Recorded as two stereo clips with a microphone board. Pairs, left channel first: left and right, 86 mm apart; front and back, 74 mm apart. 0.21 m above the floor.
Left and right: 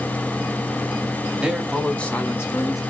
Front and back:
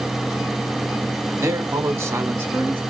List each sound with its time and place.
1.4 s a man speaking: 165° right, 1.2 m; by 2.8 s 120° left, 1.5 m